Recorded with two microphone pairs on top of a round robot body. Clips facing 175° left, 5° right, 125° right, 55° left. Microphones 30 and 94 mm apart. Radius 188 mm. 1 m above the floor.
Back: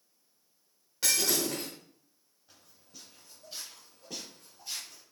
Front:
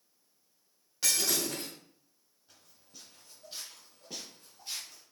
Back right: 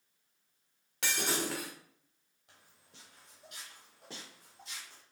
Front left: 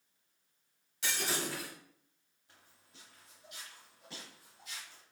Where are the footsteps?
100° right, 1.5 m; by 5.0 s 60° right, 2.5 m.